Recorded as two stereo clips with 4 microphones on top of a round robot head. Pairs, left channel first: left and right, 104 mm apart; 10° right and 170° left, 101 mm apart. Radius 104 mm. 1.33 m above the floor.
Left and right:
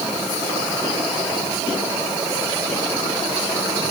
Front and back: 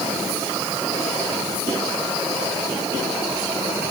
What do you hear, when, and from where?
Only background noise.